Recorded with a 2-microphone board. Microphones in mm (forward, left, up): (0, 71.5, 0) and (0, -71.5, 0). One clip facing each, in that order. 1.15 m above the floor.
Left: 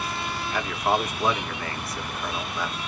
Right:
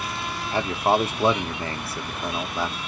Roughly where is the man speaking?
Right.